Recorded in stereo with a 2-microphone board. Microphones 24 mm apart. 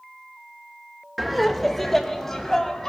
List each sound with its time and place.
1.2 s laughter: 5° right (ahead or behind), 1.0 m; by 2.9 s 15° left (ahead or behind), 3 m